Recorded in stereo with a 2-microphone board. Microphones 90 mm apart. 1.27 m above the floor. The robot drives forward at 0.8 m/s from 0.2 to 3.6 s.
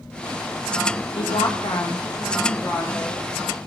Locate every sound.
1.2 s a woman speaking: 85° left, 0.7 m; by 3.2 s 20° left (ahead or behind), 1.7 m